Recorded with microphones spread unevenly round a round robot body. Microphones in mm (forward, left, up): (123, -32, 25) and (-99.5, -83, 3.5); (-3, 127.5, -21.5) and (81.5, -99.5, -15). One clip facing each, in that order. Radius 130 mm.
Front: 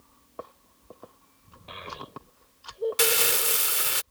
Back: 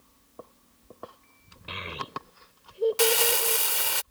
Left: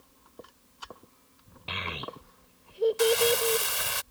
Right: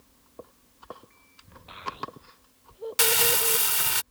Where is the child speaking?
135° left.